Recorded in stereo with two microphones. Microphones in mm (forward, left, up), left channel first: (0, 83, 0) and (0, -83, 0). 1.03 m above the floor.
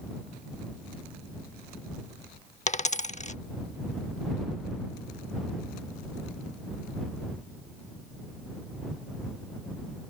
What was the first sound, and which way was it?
A dropped coin, 45° left (ahead or behind).